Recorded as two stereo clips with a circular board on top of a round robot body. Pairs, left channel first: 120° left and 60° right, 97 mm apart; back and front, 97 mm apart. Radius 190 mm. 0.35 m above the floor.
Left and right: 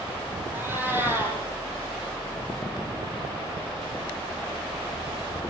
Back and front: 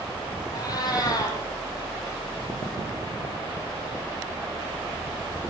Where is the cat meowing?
130° right, 7.5 m.